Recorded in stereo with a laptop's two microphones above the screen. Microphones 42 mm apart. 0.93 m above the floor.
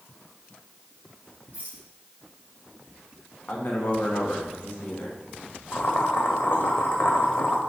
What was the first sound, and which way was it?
A rattle, 50° right (ahead or behind).